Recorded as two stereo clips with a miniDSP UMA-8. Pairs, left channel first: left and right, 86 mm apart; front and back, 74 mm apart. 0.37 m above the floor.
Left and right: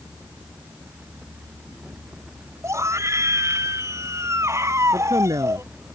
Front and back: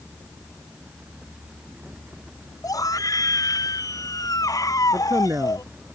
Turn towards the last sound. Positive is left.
turn(degrees=-130)